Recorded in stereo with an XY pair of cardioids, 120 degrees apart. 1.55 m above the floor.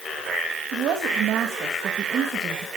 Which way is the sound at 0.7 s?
65° right.